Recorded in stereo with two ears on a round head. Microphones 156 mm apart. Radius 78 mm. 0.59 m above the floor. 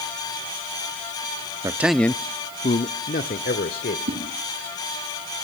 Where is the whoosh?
55° right (ahead or behind), 9 m.